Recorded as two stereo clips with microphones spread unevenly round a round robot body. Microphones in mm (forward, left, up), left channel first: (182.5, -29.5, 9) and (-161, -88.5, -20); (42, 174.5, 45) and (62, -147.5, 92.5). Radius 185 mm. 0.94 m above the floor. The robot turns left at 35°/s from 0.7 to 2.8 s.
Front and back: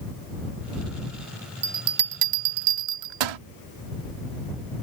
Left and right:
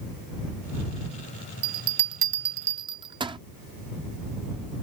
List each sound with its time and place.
1.6 s a bell: 120° right; by 3.4 s 165° right